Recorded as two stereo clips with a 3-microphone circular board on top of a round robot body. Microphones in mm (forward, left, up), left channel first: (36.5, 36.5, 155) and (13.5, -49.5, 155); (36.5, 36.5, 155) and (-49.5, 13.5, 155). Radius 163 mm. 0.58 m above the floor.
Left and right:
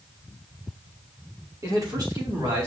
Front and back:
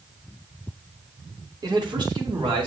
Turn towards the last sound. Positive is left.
turn(degrees=-145)